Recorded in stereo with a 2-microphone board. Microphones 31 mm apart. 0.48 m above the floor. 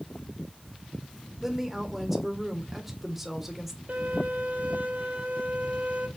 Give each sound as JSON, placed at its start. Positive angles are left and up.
{"t": 1.4, "sound": "a woman speaking", "side_deg": -10, "distance_m": 1.6}
{"t": 3.9, "sound": "a violin", "side_deg": -70, "distance_m": 2.5}